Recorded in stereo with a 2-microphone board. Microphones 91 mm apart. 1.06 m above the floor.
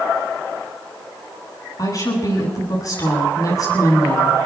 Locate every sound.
1.8 s a woman speaking: 40° left (ahead or behind), 9.5 m